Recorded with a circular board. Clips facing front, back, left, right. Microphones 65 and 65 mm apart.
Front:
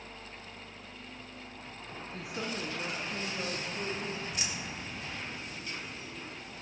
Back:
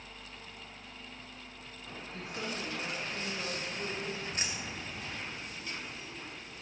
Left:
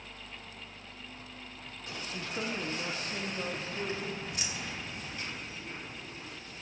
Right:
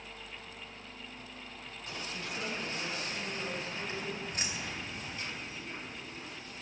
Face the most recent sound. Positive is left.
turn(degrees=-135)